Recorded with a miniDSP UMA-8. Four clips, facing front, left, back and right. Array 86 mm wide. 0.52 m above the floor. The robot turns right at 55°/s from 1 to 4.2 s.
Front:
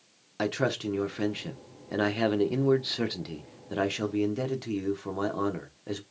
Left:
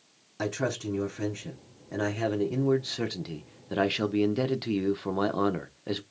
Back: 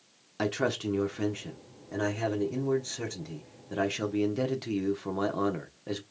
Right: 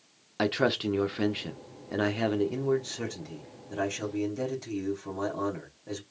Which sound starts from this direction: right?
A man speaking, at 0.4 s.